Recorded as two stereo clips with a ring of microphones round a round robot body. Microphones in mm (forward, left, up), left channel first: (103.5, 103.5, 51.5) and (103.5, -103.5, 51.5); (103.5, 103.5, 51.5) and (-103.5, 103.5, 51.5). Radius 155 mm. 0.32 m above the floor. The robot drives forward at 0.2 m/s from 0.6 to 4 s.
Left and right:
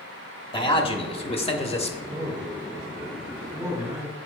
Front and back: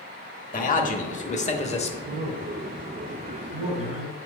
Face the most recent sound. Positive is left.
turn(degrees=-155)